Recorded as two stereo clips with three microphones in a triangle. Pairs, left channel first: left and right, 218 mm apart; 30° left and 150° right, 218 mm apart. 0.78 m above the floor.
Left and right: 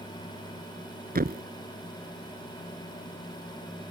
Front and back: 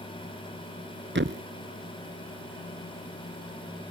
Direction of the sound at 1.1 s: 130° right.